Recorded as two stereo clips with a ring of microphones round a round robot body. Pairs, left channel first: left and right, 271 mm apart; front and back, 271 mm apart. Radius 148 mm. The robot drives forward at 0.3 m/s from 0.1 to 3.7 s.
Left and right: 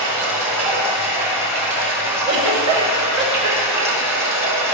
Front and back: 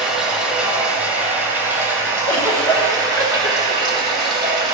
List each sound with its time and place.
0.0 s running water: 90° right, 4 m; by 4.8 s 105° right, 4.5 m
2.2 s a giggle: 75° right, 3.5 m; by 4.1 s 85° right, 3 m